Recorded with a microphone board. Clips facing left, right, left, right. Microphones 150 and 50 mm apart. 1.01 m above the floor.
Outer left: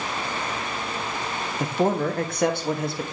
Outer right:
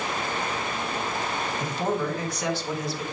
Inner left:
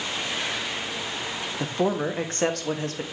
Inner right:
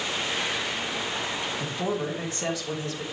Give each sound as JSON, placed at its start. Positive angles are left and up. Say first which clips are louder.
{"t": 1.6, "sound": "a man speaking", "louder": "outer left 6 dB, inner left 7 dB", "side_deg": 55, "distance_m": 1.4}